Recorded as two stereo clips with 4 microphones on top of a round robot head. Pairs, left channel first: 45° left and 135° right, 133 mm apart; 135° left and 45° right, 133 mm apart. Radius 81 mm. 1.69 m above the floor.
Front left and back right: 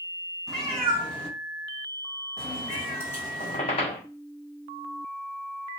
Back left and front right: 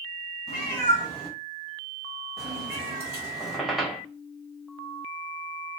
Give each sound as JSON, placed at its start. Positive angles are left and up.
{"t": 0.5, "sound": "a cat meowing", "azimuth_deg": 125, "distance_m": 1.8}
{"t": 3.4, "sound": "a squeak", "azimuth_deg": 40, "distance_m": 0.7}